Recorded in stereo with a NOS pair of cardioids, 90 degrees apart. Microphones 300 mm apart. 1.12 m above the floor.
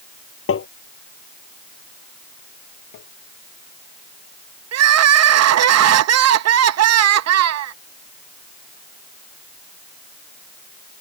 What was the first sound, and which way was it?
Tapping, 45° left.